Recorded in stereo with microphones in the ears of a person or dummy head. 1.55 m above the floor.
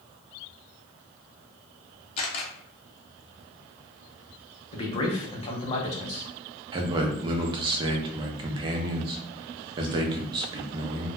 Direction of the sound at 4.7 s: 30° left (ahead or behind).